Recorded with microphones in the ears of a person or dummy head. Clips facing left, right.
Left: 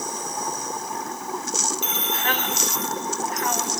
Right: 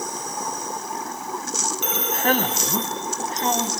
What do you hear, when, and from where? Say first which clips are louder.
1.8 s a man speaking: right 5 dB; 45° right (ahead or behind), 0.8 m; by 3.7 s 20° right (ahead or behind), 2.5 m